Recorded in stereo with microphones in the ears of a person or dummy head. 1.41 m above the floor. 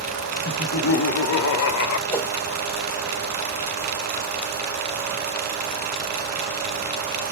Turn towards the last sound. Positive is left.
turn(degrees=10)  # may be behind; listen again after turning